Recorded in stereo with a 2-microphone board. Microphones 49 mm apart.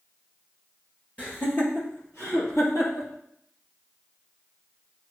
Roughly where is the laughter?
Left.